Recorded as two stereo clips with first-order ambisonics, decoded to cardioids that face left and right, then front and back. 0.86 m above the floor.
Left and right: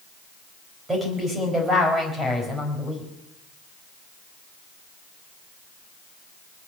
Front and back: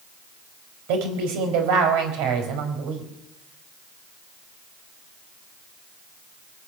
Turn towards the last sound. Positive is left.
turn(degrees=-165)